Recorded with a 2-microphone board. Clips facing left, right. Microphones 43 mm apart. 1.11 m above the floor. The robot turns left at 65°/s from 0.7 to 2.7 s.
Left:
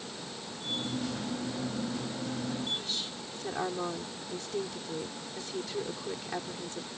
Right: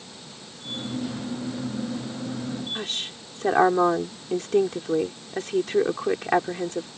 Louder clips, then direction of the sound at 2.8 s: Right 5 dB; 55° right (ahead or behind).